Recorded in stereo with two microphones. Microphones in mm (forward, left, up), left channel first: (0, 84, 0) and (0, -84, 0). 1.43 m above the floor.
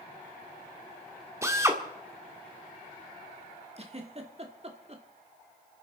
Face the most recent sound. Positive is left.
turn(degrees=-40)  # may be behind; listen again after turning